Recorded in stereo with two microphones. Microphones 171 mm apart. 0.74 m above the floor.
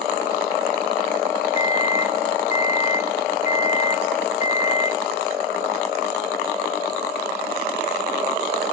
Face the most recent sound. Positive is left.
turn(degrees=45)  # may be behind; listen again after turning